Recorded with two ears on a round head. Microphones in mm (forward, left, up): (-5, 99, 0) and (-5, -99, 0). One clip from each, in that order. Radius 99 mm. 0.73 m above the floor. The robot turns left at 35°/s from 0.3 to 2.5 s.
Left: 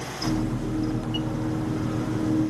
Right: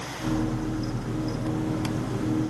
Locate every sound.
Only background noise.